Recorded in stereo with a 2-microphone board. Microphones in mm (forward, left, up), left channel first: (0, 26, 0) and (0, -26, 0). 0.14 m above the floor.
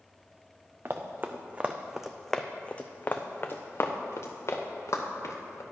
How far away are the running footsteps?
About 1.0 m.